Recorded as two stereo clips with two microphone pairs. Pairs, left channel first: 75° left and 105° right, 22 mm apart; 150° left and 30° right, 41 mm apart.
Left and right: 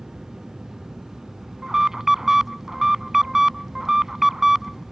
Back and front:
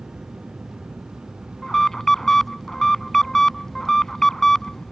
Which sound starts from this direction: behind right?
An alarm, at 1.6 s.